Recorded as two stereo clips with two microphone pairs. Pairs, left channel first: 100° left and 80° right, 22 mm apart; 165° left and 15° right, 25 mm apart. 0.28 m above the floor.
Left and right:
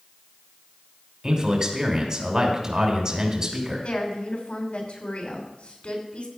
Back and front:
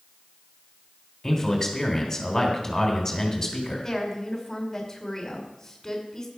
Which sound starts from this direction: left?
A woman speaking, at 3.8 s.